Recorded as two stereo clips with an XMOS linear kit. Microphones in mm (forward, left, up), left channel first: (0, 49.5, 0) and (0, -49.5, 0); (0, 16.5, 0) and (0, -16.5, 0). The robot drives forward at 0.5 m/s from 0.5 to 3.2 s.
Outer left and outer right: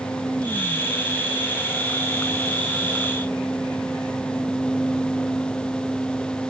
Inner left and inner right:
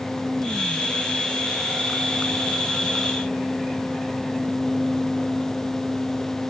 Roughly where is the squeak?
No squeak in this recording.